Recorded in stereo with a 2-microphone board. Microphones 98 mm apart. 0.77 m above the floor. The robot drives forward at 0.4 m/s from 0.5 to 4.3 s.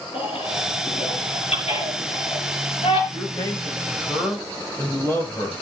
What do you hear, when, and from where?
0.1 s a baby crying: 85° left, 6 m; by 3.0 s 75° left (ahead or behind), 6 m
3.1 s a man speaking: 30° left (ahead or behind), 4 m; by 5.5 s 25° left (ahead or behind), 4.5 m